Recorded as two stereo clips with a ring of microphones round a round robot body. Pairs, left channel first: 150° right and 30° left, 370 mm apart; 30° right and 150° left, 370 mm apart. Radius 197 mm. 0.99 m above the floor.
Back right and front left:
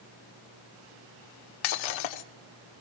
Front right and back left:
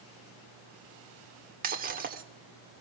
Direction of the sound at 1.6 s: 145° right.